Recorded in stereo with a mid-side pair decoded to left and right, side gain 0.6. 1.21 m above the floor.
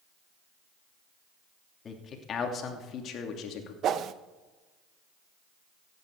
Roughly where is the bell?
I don't hear a bell.